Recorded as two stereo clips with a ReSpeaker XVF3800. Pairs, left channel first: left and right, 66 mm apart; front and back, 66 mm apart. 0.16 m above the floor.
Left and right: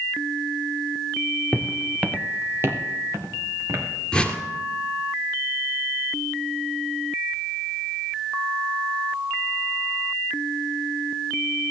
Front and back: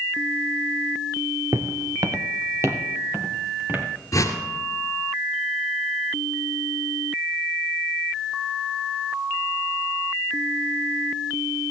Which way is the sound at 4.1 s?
15° left.